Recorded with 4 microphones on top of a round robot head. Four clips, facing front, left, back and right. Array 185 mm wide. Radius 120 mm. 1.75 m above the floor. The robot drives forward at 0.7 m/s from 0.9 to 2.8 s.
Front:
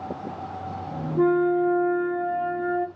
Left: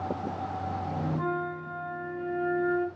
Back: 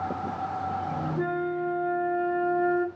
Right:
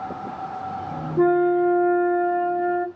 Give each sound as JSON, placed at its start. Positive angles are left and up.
{"t": 1.2, "sound": "a flute", "azimuth_deg": -65, "distance_m": 0.8}